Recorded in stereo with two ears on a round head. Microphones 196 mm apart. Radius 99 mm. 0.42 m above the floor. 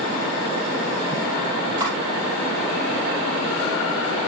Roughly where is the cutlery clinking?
Right.